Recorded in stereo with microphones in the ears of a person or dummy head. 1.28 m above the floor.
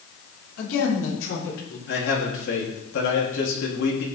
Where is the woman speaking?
80° left, 4 m; by 1.8 s 65° left (ahead or behind), 5 m.